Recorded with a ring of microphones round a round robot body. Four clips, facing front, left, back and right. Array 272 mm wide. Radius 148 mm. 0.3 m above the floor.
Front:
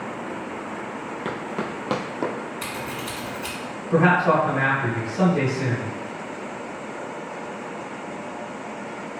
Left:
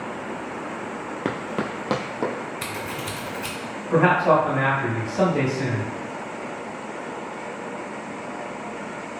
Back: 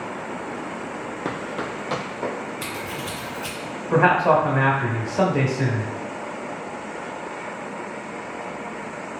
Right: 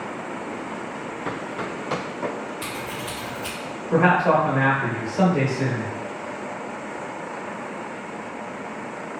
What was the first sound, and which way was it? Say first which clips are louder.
Running footsteps: left 4 dB, even; 100° left.